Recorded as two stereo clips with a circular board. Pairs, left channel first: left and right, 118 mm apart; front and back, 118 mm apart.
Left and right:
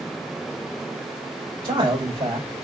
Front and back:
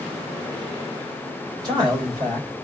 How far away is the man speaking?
About 3 m.